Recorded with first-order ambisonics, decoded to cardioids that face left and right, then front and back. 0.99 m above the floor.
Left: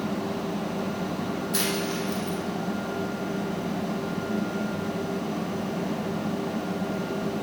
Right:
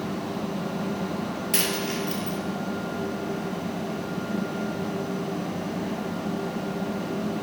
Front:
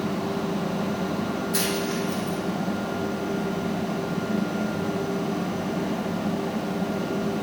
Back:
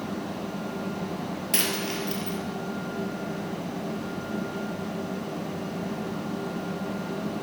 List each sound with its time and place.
1.5 s a dropped coin: 135° right, 3.5 m